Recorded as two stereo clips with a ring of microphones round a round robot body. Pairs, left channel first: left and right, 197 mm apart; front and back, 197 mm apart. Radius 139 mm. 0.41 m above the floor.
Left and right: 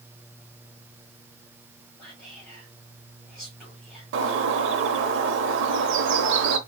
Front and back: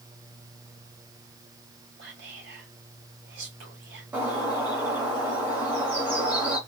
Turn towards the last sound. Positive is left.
turn(degrees=-95)